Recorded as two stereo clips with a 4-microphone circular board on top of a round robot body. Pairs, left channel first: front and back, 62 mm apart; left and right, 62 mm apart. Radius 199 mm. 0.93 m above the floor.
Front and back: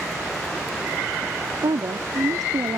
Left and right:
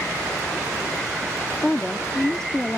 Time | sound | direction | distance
1.6 | a woman speaking | 170° left | ?